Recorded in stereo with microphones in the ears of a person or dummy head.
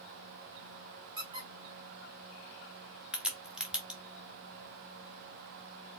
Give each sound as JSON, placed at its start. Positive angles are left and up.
{"t": 1.2, "sound": "a squeak", "side_deg": -25, "distance_m": 1.2}
{"t": 3.1, "sound": "a crack", "side_deg": 0, "distance_m": 0.8}